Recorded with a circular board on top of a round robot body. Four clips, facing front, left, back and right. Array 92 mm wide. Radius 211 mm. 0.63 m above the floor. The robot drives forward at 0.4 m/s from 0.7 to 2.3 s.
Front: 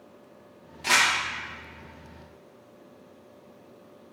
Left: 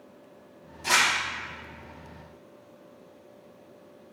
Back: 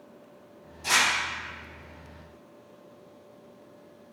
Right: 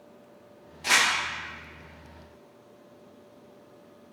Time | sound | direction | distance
0.8 | crumpling | 35° right | 1.4 m